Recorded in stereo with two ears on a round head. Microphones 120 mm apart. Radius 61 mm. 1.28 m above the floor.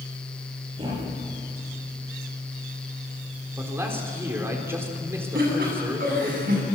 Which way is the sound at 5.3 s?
75° right (ahead or behind).